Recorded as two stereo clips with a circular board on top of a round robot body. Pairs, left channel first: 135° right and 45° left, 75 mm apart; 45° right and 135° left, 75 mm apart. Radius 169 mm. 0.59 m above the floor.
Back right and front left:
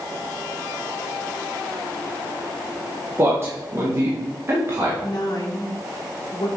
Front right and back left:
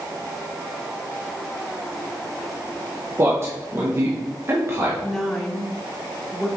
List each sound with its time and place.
3.2 s a man speaking: 90° left, 1.9 m
5.0 s a woman speaking: 130° right, 1.7 m